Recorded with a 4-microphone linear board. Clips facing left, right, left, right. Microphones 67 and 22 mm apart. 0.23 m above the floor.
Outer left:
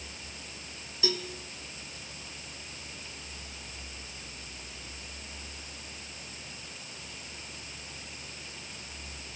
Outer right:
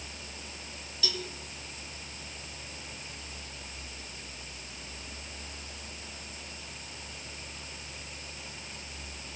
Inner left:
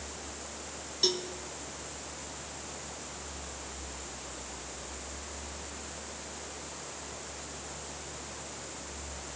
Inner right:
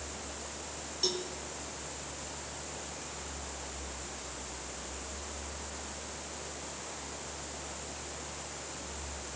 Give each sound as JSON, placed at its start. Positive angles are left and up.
{"t": 1.0, "sound": "a cowbell", "side_deg": 25, "distance_m": 2.0}